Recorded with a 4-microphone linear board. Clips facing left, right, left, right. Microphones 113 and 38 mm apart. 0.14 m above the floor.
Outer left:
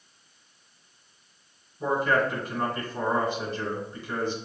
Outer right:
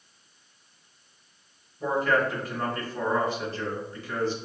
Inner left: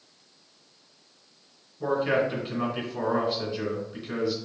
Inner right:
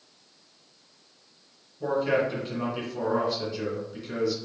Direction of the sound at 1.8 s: 20° left (ahead or behind).